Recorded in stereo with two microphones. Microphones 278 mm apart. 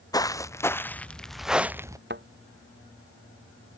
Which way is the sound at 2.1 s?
40° right (ahead or behind).